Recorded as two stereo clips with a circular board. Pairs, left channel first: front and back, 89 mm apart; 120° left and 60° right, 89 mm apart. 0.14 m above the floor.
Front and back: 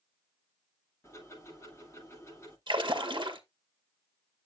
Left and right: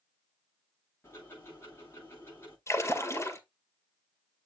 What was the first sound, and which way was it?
Ticking, 60° left.